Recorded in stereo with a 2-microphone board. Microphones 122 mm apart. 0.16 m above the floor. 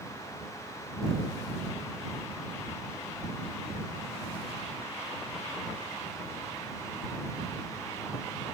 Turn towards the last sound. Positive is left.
No sound to turn to.